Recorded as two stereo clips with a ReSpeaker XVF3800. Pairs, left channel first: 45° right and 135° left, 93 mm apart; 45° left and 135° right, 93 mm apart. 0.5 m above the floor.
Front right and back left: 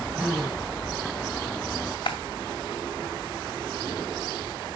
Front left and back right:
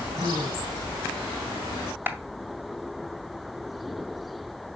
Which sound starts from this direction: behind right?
A gasp, at 0.1 s.